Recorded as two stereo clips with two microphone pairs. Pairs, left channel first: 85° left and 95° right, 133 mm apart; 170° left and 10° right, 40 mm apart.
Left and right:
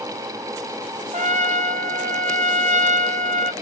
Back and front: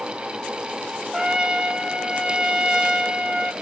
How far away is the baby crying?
No baby crying in this recording.